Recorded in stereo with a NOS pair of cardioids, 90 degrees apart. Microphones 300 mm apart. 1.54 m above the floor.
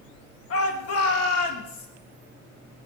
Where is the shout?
50° left, 3 m; by 1.9 s 65° left, 3 m.